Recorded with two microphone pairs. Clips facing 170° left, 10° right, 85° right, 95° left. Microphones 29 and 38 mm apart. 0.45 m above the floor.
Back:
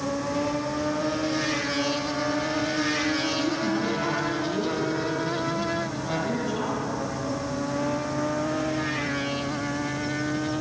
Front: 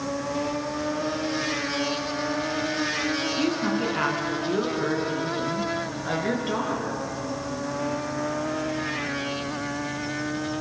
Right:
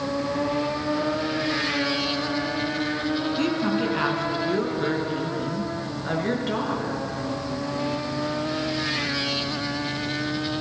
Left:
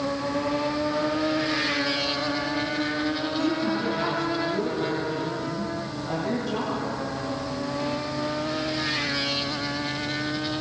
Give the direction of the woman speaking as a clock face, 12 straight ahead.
2 o'clock.